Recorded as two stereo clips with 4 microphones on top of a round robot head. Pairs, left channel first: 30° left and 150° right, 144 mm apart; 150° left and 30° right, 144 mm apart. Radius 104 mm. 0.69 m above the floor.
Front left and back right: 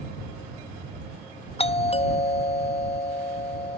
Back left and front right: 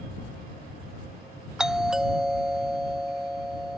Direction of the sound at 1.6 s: 55° left.